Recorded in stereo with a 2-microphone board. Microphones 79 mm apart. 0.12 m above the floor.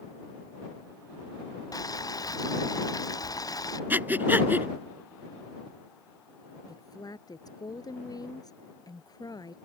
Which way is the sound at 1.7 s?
45° left (ahead or behind).